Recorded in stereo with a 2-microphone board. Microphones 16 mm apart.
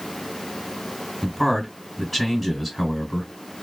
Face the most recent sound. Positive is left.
turn(degrees=15)  # may be behind; listen again after turning